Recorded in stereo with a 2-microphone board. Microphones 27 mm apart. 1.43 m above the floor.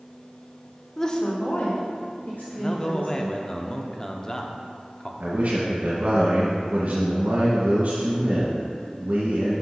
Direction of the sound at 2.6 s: 25° left (ahead or behind).